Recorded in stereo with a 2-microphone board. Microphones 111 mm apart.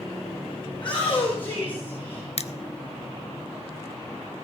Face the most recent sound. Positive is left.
turn(degrees=65)  # may be behind; listen again after turning